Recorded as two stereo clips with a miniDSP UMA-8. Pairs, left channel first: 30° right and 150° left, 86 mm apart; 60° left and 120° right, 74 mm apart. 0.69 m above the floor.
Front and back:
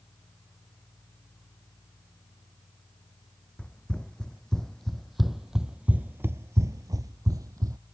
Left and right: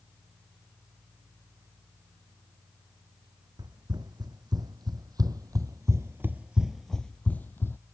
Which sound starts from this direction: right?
Running footsteps, at 3.6 s.